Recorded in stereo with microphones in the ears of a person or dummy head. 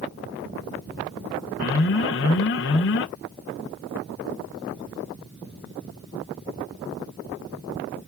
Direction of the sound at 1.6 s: 65° left (ahead or behind).